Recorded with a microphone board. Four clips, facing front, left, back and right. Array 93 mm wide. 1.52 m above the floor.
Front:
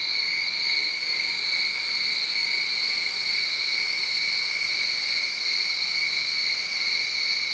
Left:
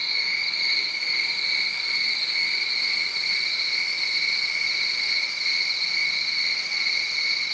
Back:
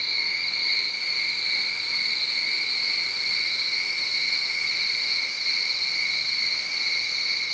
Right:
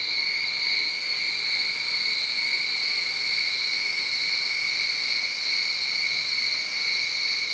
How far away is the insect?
About 2.5 m.